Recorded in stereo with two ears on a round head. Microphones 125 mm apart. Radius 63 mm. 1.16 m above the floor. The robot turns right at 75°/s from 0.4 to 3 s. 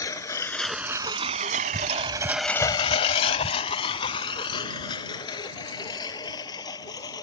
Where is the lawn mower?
25° left (ahead or behind); by 7.2 s 30° left (ahead or behind).